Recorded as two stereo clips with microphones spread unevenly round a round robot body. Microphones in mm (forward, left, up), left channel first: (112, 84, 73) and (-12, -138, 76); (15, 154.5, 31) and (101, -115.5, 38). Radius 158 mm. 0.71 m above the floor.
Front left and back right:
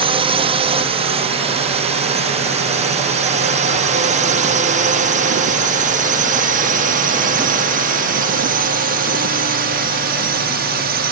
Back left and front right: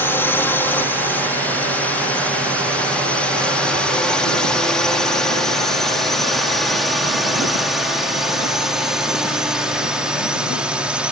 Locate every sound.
0.0 s a drone: 175° right; by 11.1 s 160° right